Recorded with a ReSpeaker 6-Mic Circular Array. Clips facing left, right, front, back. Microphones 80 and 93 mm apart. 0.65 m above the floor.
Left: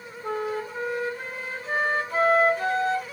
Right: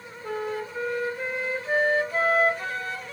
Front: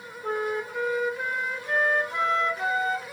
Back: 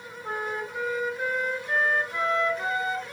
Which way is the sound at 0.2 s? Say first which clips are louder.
Left 2 dB, front 4 dB; 45° left.